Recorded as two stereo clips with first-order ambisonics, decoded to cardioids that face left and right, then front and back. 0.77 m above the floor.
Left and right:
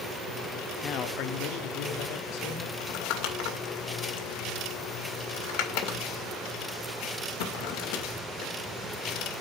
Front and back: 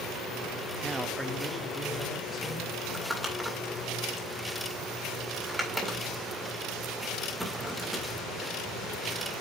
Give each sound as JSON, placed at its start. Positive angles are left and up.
{"t": 0.8, "sound": "a man speaking", "azimuth_deg": 120, "distance_m": 0.6}
{"t": 2.8, "sound": "crumpling", "azimuth_deg": 85, "distance_m": 2.0}